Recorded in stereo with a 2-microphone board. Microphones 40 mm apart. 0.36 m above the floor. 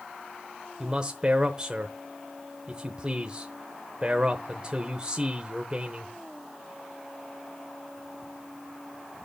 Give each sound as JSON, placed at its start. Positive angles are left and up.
{"t": 0.8, "sound": "a man speaking", "side_deg": -25, "distance_m": 0.9}